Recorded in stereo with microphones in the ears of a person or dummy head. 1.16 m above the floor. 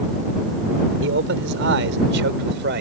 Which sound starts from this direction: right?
A man speaking, at 1.0 s.